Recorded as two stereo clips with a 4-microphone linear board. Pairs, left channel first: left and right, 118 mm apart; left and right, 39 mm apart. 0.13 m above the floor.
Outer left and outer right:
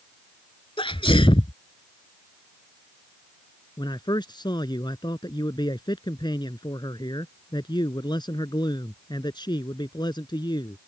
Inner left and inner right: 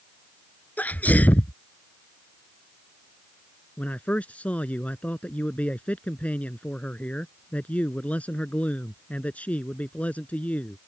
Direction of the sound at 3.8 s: 35° left (ahead or behind).